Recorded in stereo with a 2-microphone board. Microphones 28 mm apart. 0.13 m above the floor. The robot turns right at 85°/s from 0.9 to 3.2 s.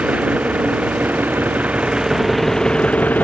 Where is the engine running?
125° right; by 3.2 s 70° left.